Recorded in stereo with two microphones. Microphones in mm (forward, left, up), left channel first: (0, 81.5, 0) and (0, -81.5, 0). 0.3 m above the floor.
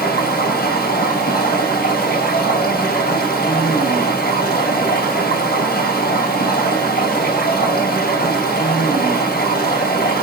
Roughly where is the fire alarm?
I don't hear a fire alarm.